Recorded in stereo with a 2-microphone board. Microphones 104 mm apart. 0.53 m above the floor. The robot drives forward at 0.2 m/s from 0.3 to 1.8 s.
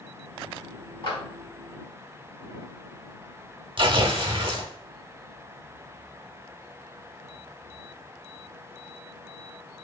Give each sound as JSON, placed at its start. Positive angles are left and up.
{"t": 1.0, "sound": "a clap", "side_deg": 55, "distance_m": 2.0}
{"t": 3.8, "sound": "tearing paper", "side_deg": -55, "distance_m": 0.8}